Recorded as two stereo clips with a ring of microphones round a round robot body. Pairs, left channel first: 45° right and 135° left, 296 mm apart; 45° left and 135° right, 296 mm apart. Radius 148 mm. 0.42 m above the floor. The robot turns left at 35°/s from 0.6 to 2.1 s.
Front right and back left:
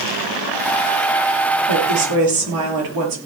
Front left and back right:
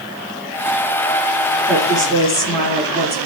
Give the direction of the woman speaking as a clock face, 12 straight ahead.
8 o'clock.